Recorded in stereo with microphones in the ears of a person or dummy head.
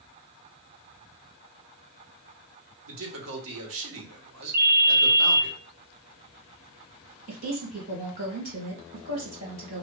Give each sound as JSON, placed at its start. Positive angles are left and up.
{"t": 2.9, "sound": "a man speaking", "side_deg": -75, "distance_m": 1.1}
{"t": 4.5, "sound": "a ringtone", "side_deg": -50, "distance_m": 0.6}
{"t": 7.3, "sound": "a woman speaking", "side_deg": -50, "distance_m": 2.0}